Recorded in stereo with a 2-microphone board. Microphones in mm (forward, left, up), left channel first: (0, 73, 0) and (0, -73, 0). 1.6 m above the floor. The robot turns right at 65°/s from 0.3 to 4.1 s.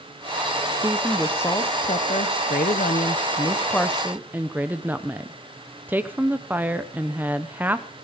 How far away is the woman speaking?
About 0.9 m.